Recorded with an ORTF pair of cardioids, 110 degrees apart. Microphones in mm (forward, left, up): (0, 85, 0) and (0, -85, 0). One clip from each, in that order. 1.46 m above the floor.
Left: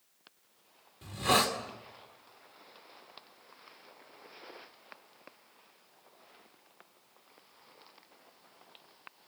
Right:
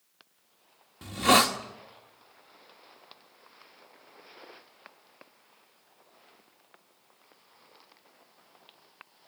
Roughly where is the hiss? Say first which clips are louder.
Right 6 dB; ahead right.